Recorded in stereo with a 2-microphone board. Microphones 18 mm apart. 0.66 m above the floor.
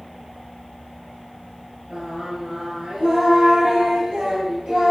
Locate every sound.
1.9 s singing: 80° right, 8 m